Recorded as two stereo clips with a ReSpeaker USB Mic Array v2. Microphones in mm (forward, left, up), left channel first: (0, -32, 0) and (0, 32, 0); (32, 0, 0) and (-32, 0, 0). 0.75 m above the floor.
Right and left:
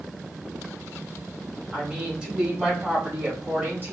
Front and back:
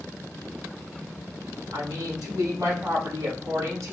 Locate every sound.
1.7 s a woman speaking: 170° left, 3.5 m; by 3.9 s 145° left, 3 m